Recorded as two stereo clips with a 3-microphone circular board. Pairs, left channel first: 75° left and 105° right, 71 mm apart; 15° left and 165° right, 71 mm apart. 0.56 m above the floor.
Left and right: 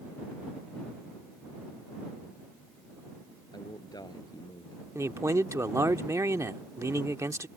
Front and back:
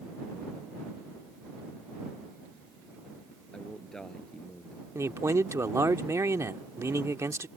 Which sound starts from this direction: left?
A man speaking, at 3.5 s.